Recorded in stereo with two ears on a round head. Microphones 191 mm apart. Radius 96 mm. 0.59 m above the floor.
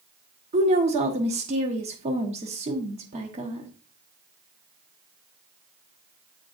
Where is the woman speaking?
30° right (ahead or behind), 1.1 m.